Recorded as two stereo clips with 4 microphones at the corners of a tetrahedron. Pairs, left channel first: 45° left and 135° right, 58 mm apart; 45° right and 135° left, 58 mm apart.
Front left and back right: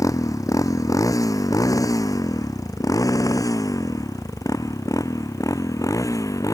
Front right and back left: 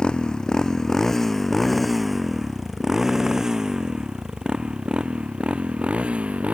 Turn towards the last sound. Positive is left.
turn(degrees=65)